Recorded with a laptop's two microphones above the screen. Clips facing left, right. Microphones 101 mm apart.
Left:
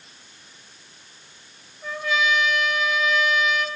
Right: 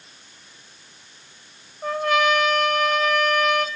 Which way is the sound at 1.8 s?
55° right (ahead or behind).